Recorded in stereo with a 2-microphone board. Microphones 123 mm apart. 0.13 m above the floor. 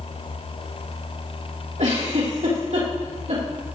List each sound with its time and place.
1.8 s a giggle: 70° right (ahead or behind), 4.5 m